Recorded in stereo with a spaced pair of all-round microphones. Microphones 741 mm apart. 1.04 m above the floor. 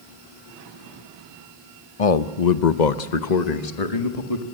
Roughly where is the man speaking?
Left.